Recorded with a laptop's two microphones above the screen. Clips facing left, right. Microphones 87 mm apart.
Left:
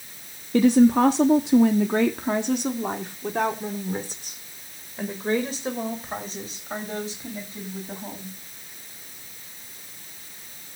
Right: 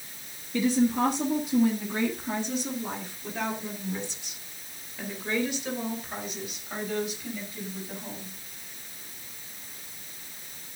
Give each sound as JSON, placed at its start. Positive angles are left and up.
{"t": 0.5, "sound": "a woman speaking", "side_deg": 60, "distance_m": 1.2}